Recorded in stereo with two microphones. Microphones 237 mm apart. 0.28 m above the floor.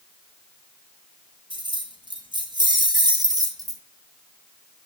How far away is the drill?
No drill in this recording.